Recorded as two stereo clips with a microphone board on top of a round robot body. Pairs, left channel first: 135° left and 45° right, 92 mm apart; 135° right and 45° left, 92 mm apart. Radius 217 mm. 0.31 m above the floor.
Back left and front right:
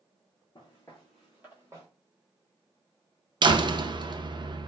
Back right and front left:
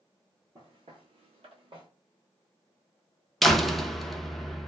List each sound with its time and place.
0.6 s footsteps: 100° left, 0.5 m; by 1.9 s 15° left, 1.0 m
3.4 s a door slam: 50° right, 0.7 m